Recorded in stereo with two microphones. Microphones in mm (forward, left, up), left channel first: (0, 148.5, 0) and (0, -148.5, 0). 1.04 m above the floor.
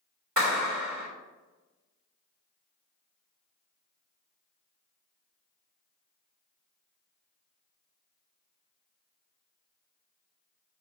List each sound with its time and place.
0.4 s a clap: 70° right (ahead or behind), 3 m